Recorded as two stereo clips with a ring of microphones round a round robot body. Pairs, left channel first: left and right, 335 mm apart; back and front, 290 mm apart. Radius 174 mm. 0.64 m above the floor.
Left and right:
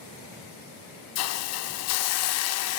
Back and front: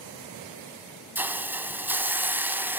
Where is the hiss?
80° left, 0.6 m.